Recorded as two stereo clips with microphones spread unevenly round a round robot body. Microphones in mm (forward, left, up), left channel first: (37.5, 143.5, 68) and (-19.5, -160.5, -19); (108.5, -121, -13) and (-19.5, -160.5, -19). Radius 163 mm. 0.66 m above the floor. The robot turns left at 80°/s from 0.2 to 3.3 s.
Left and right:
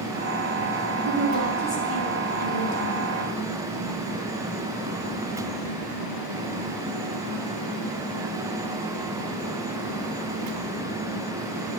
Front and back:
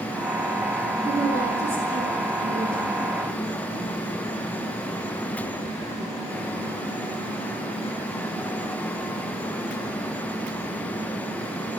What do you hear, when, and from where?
1.0 s a woman speaking: 145° right, 4 m; by 3.1 s 50° left, 4 m